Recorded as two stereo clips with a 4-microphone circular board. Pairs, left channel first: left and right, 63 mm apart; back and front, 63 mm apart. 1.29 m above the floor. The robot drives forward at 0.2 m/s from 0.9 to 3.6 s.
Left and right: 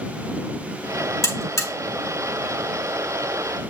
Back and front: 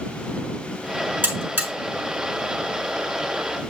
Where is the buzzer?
65° left, 3.5 m.